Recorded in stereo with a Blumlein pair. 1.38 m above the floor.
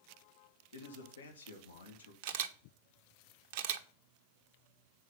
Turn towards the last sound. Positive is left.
turn(degrees=-50)